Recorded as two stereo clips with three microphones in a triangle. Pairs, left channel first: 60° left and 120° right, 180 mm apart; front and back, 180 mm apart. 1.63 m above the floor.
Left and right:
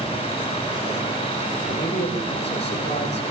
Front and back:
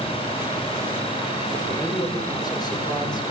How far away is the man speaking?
About 7.5 m.